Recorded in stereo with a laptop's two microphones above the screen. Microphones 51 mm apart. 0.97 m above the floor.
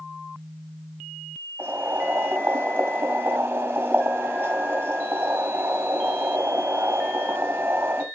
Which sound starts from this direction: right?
Boiling, at 1.6 s.